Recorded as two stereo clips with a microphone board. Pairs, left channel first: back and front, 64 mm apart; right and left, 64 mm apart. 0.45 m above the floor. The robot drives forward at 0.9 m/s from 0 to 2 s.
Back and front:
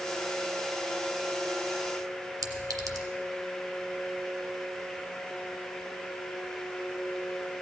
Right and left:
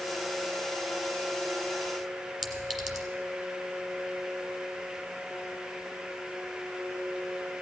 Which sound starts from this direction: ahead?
A clink, at 2.4 s.